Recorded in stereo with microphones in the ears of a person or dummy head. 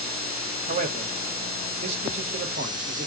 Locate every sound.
0.7 s a man speaking: 40° right (ahead or behind), 1.0 m